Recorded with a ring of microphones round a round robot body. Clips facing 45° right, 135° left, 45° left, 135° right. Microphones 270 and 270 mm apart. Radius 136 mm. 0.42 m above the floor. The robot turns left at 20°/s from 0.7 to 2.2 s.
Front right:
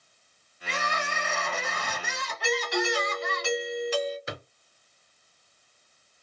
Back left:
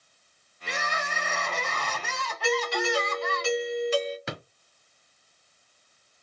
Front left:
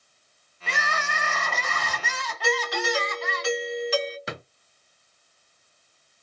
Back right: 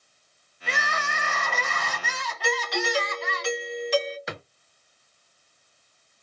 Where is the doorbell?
130° left, 1.8 m.